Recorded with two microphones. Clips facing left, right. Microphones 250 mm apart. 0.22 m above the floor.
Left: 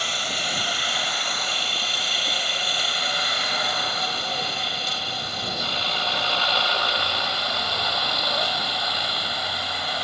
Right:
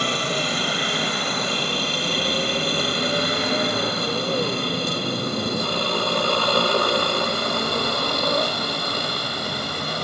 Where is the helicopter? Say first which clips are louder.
Right 9 dB; 65° right (ahead or behind); by 10.1 s 50° right (ahead or behind).